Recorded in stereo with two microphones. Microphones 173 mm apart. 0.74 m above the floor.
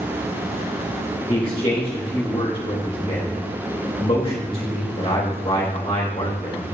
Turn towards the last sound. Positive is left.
turn(degrees=35)  # may be behind; listen again after turning